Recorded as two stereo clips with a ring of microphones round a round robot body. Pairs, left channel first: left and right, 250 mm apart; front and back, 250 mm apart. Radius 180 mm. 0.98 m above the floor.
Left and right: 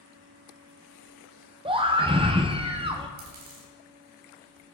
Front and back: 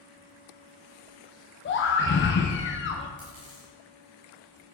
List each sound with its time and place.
1.6 s a scream: 25° right, 0.8 m
3.2 s a dropped coin: 110° right, 2 m